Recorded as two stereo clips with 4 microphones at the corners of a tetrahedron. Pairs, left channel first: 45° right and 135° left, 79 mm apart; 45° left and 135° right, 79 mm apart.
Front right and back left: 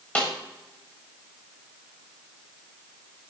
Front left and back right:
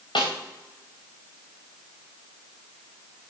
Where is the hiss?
No hiss in this recording.